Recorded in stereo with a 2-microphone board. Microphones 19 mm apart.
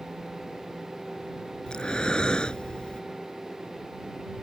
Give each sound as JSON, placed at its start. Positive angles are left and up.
{"t": 1.7, "sound": "breathing", "side_deg": 55}